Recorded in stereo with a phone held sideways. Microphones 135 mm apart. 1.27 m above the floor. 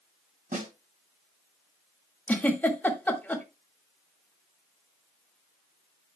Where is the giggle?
10° left (ahead or behind), 1.9 m.